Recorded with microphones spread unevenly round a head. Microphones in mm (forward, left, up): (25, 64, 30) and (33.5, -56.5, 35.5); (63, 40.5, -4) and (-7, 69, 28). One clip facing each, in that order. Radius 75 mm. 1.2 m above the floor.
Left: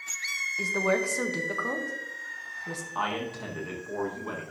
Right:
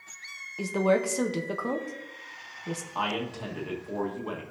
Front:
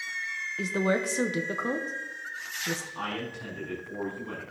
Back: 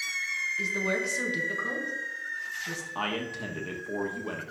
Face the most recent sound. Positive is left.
turn(degrees=-170)